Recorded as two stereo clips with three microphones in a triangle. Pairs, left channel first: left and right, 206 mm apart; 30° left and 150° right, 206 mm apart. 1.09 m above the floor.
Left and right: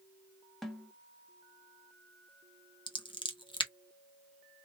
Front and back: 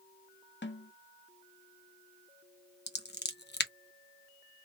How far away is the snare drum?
About 0.8 m.